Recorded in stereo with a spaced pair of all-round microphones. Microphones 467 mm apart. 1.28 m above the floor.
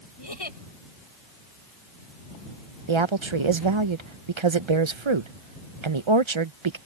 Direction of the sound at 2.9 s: 80° right.